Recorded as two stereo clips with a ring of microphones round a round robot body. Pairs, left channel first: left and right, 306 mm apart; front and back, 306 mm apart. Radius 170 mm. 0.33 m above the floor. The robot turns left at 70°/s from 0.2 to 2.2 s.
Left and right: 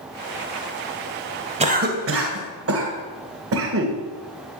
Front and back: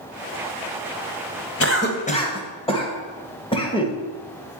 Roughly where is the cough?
Ahead right.